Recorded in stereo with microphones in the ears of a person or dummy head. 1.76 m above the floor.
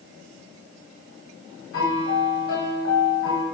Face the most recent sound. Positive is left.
turn(degrees=70)  # may be behind; listen again after turning